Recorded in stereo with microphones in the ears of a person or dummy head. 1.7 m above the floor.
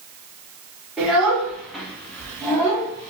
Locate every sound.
1.0 s a child speaking: 10° right (ahead or behind), 2 m; by 3.1 s 25° left (ahead or behind), 0.9 m